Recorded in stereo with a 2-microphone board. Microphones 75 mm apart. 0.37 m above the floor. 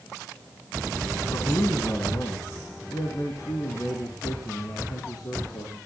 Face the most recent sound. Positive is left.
turn(degrees=65)  # may be behind; listen again after turning